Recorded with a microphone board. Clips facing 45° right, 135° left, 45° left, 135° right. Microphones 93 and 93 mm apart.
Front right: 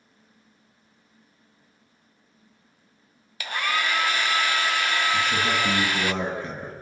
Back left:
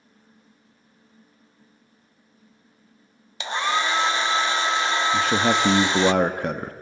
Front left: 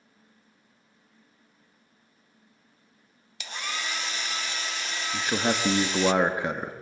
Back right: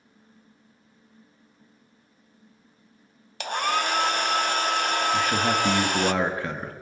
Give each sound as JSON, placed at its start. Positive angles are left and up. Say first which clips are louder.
{"t": 3.4, "sound": "a hair dryer", "louder": "back left 3 dB, back right 10 dB", "azimuth_deg": -160, "distance_m": 0.6}
{"t": 5.1, "sound": "a man speaking", "louder": "back left 4 dB, front left 1 dB", "azimuth_deg": 115, "distance_m": 1.7}